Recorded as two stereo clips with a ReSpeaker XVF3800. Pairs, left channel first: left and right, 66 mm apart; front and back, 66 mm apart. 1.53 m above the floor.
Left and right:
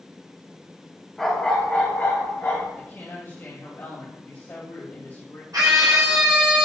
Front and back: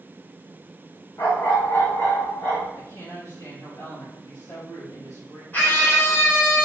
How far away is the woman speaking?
About 2.5 m.